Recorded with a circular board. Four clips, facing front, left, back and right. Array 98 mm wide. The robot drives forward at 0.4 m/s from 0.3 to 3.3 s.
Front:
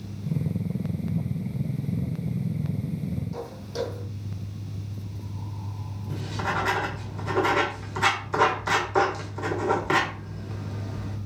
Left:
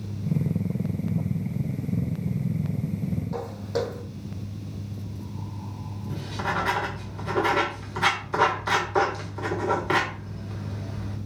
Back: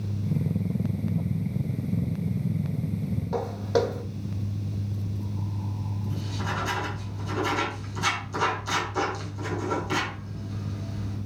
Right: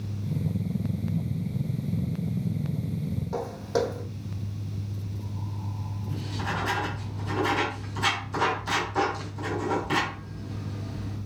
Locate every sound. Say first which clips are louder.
3.3 s footsteps: right 6 dB, back 8 dB; 170° right, 2.0 m
6.1 s writing: left 4 dB, front 5 dB; 40° left, 2.5 m